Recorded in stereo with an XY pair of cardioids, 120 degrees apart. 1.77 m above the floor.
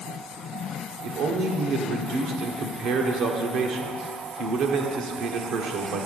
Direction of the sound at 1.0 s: 70° right.